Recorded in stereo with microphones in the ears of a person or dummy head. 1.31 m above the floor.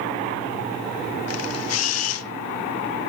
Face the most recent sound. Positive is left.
turn(degrees=75)  # may be behind; listen again after turning